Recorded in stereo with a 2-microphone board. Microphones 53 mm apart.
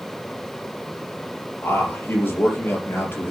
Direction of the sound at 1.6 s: 45° left (ahead or behind).